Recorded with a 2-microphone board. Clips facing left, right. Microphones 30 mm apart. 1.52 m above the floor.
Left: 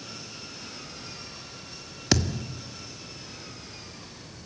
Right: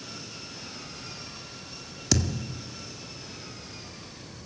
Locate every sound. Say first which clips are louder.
2.1 s a thud: left 2 dB; 30° left (ahead or behind), 1.1 m